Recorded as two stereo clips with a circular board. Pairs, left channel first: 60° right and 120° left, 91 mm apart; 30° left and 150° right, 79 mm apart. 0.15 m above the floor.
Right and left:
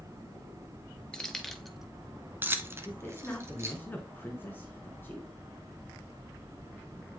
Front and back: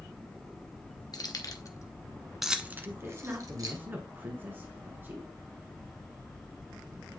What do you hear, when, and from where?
1.1 s keys jangling: 20° left, 1.6 m; by 3.8 s straight behind, 2.0 m
2.9 s a man speaking: 110° right, 1.6 m